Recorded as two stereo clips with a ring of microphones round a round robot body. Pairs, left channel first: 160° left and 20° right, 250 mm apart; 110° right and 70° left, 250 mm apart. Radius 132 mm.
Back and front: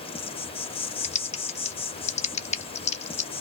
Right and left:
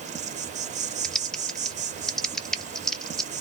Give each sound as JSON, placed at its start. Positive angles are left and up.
{"t": 0.0, "sound": "an insect", "azimuth_deg": 105, "distance_m": 0.9}
{"t": 1.0, "sound": "typing on a keyboard", "azimuth_deg": 160, "distance_m": 0.6}